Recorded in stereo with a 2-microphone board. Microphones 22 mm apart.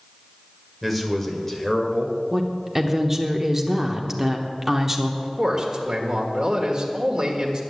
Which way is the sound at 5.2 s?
30° right (ahead or behind).